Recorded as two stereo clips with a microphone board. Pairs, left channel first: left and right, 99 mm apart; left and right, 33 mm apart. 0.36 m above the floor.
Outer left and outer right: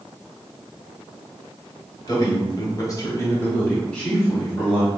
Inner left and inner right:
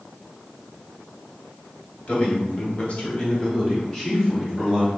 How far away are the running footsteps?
No running footsteps in this recording.